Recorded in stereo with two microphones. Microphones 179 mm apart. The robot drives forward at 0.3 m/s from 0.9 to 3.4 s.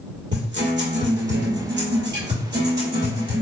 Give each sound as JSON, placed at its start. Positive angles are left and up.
{"t": 0.3, "sound": "a guitar", "side_deg": -80, "distance_m": 1.7}